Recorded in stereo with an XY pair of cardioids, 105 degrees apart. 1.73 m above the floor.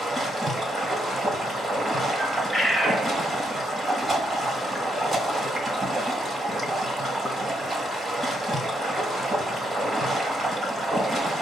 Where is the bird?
25° right, 1.2 m.